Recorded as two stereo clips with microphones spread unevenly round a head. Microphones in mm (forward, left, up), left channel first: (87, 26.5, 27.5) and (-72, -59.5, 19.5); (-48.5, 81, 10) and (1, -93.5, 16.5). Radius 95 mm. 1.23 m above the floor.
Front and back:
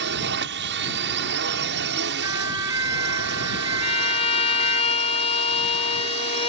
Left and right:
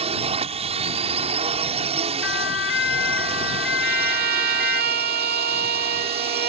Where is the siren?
135° left.